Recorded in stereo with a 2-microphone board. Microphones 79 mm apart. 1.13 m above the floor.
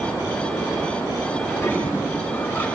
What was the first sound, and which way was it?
A toilet flushing, 25° left (ahead or behind).